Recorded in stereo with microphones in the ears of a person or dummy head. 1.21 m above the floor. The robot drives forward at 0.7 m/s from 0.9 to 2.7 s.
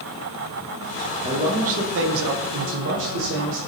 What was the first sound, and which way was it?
A man speaking, 30° right (ahead or behind).